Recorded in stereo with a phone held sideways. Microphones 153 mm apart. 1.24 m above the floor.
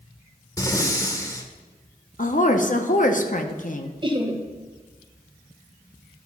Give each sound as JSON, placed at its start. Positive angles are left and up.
{"t": 0.6, "sound": "breathing", "side_deg": 20, "distance_m": 1.1}
{"t": 2.2, "sound": "a woman speaking", "side_deg": 55, "distance_m": 1.0}
{"t": 4.0, "sound": "laughter", "side_deg": -30, "distance_m": 1.4}